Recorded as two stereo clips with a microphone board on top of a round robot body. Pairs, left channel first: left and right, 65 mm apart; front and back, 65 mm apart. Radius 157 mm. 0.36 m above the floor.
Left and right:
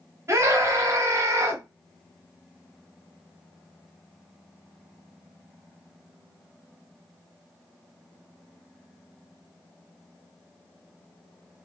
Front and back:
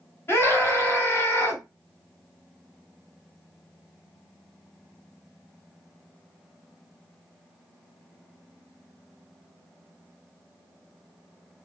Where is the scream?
50° right, 2.5 m.